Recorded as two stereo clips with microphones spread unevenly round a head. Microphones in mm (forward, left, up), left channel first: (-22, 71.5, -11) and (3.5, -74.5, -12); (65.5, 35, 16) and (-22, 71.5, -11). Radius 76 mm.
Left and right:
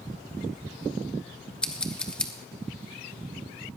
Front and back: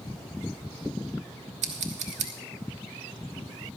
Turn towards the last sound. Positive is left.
turn(degrees=-175)